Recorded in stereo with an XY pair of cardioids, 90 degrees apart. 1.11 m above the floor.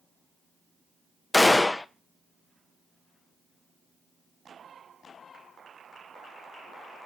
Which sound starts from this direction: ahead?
A gunshot, at 1.3 s.